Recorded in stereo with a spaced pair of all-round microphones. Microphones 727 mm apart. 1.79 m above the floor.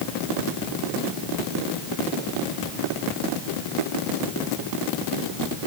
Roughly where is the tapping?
No tapping in this recording.